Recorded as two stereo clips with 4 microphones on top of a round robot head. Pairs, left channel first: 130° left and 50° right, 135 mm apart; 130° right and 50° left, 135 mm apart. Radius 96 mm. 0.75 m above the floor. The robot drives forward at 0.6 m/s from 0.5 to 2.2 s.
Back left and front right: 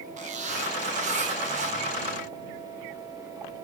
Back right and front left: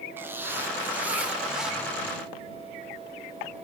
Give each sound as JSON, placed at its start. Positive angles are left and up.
{"t": 0.2, "sound": "a zipper", "azimuth_deg": -25, "distance_m": 2.0}